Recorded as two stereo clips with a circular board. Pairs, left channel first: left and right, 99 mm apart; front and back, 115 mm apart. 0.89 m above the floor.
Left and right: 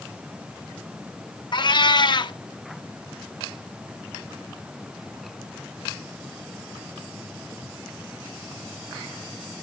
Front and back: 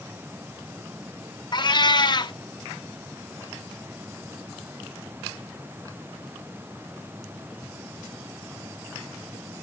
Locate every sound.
1.5 s a cat meowing: 50° left, 0.7 m